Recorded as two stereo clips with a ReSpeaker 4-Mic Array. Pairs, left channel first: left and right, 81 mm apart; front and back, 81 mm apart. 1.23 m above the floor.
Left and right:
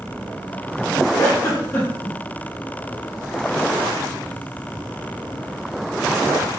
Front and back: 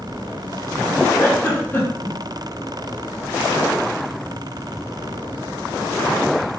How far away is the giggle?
About 0.6 m.